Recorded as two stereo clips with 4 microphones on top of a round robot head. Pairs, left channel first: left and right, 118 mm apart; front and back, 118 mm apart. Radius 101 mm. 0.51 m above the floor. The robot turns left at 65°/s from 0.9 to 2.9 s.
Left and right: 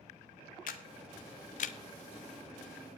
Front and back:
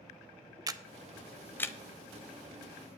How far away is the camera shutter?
About 0.5 m.